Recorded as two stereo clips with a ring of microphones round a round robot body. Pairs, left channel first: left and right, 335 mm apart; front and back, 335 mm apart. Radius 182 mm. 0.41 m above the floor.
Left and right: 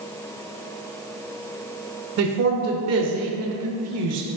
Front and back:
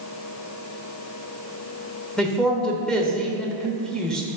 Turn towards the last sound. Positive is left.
turn(degrees=-85)